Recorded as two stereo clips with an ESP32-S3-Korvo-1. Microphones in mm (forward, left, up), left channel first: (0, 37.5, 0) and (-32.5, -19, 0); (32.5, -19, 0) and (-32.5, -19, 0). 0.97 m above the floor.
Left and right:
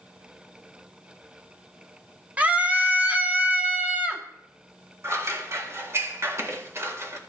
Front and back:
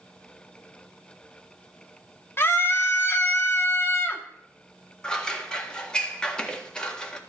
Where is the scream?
55° right, 1.7 m.